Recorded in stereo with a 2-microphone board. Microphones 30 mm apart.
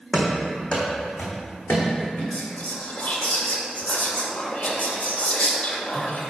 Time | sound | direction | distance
0.1 | running footsteps | 5° left (ahead or behind) | 1.5 m
2.3 | whispering | 50° left (ahead or behind) | 1.3 m